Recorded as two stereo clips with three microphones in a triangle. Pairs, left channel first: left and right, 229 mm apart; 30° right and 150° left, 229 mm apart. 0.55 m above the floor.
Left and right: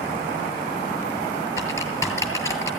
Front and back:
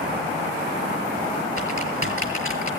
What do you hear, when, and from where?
1.6 s typing on a keyboard: 165° left, 7.5 m